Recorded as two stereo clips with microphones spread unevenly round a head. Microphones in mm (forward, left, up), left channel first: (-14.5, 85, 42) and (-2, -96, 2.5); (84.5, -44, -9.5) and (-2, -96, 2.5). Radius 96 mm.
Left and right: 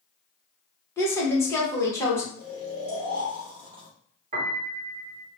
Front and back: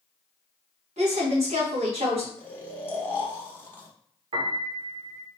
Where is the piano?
140° right, 0.9 m.